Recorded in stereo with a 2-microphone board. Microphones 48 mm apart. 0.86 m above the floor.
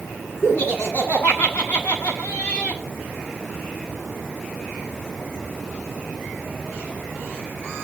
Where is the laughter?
35° left (ahead or behind), 10 m; by 2.8 s 25° left (ahead or behind), 8 m.